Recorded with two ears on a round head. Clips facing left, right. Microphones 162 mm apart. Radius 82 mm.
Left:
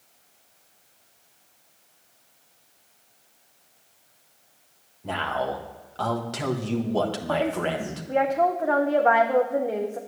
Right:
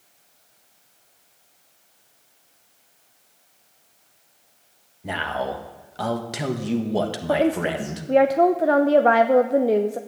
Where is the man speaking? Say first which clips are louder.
Right 1 dB; 15° right (ahead or behind), 1.2 m.